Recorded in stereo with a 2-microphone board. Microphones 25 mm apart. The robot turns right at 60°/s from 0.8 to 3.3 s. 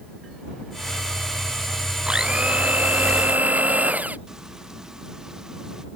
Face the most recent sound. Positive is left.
turn(degrees=-20)  # may be behind; listen again after turning